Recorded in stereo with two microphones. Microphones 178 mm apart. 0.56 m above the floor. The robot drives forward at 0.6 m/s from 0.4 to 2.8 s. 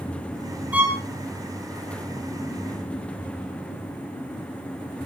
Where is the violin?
10° right (ahead or behind), 3 m.